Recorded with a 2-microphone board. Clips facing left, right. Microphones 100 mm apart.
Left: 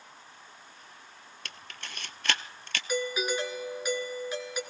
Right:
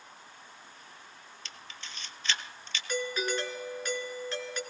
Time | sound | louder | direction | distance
1.4 | a camera shutter | left 4 dB | 65° left (ahead or behind) | 0.6 m
2.9 | a doorbell | left 2 dB | 10° left (ahead or behind) | 1.6 m